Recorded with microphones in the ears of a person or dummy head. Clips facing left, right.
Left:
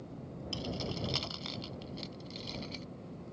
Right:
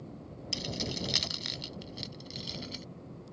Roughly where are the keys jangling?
Right.